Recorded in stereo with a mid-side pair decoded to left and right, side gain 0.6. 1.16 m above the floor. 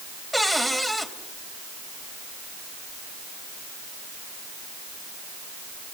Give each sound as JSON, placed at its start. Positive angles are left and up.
{"t": 0.3, "sound": "a cupboard door", "azimuth_deg": 5, "distance_m": 3.5}